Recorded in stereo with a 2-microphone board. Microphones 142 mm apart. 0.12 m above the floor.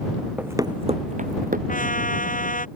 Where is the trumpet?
70° left (ahead or behind).